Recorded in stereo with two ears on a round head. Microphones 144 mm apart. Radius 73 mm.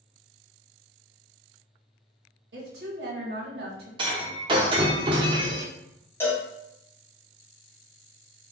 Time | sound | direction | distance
2.5 | a woman speaking | 70° right (ahead or behind) | 1.2 m
4.0 | breaking glass | 30° right (ahead or behind) | 0.7 m
6.2 | a cowbell | 15° left (ahead or behind) | 0.9 m